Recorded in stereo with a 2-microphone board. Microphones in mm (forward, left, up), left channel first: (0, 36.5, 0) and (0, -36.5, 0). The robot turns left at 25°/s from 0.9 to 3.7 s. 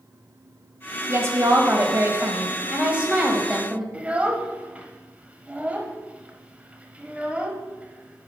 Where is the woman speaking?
105° right, 1.3 m; by 3.8 s 170° right, 1.3 m.